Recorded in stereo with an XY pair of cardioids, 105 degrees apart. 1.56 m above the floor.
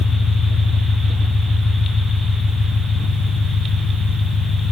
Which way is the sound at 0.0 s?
60° left.